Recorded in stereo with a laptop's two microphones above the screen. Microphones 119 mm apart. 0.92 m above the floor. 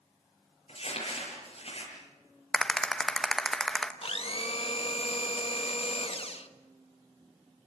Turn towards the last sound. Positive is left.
turn(degrees=55)  # may be behind; listen again after turning